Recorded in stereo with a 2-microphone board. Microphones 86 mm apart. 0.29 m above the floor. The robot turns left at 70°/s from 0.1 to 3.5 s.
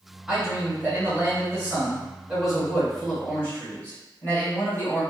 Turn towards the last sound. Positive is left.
turn(degrees=20)  # may be behind; listen again after turning